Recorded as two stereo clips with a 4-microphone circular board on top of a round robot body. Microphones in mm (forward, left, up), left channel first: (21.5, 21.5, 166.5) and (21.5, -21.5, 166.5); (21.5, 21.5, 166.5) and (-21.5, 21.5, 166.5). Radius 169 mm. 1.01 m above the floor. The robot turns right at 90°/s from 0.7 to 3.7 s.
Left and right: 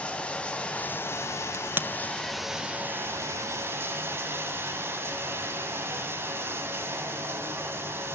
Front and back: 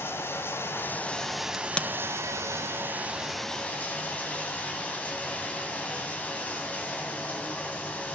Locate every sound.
0.0 s running water: 25° left, 2.5 m; by 8.2 s 65° right, 2.5 m
1.5 s a crack: 85° right, 1.4 m; by 1.9 s 55° right, 1.4 m